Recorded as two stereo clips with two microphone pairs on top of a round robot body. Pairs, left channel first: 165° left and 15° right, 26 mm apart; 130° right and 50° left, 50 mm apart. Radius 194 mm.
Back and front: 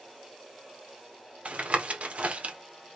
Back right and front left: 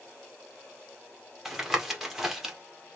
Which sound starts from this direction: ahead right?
Tapping, at 1.4 s.